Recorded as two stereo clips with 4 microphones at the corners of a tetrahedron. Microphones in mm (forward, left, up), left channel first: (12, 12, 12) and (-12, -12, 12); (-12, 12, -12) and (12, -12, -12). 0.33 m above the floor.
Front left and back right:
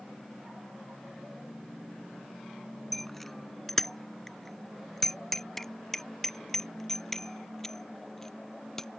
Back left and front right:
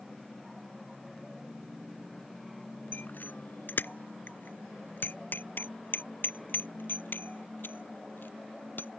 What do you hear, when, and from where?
2.9 s a bicycle bell: 130° left; by 9.0 s 125° left